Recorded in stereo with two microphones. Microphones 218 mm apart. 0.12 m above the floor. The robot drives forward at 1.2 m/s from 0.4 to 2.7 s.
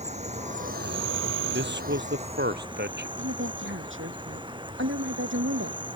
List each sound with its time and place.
0.0 s an insect: 35° right (ahead or behind); by 6.0 s 20° right (ahead or behind)
1.5 s a man speaking: 60° right (ahead or behind); by 3.1 s 55° right (ahead or behind)
3.2 s a woman speaking: 70° right (ahead or behind)